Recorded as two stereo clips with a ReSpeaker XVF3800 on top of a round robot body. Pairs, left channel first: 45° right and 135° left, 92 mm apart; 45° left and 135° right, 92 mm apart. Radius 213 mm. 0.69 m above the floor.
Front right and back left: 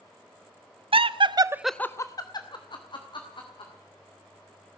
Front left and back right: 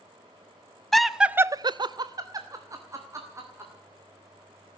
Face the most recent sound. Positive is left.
turn(degrees=-75)